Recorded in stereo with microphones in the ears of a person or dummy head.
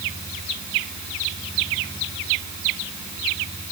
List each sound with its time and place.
Only background noise.